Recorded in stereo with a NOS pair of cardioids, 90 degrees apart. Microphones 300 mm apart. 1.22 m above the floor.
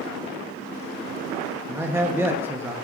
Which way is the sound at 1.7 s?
10° right.